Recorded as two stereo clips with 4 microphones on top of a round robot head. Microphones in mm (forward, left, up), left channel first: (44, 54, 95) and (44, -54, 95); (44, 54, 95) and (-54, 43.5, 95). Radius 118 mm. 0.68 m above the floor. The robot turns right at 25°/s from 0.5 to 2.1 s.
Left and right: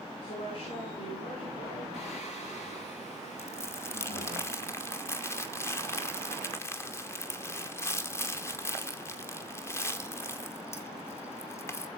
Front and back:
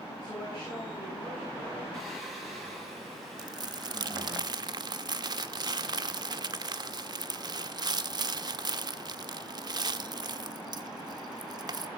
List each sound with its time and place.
0.2 s a woman speaking: 75° left, 9.5 m; by 1.8 s 110° left, 9.5 m
1.9 s singing: 95° left, 5 m
3.4 s crumpling: 150° left, 1.0 m